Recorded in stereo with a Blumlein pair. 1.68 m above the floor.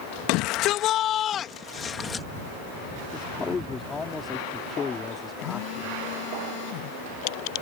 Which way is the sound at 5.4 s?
45° left.